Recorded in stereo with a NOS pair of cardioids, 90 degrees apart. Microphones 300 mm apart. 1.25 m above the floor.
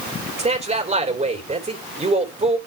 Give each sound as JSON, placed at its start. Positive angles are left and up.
{"t": 0.4, "sound": "a man speaking", "azimuth_deg": -25, "distance_m": 3.5}